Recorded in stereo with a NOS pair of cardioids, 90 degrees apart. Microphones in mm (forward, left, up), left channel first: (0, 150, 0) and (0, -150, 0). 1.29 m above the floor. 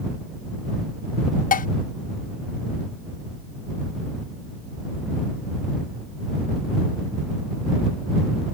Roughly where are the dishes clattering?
Ahead left.